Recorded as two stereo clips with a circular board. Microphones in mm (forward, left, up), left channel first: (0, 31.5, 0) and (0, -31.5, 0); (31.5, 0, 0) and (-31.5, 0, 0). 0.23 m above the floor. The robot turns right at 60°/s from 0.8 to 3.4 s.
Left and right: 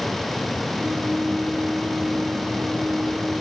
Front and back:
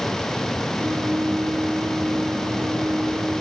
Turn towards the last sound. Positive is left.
No sound to turn to.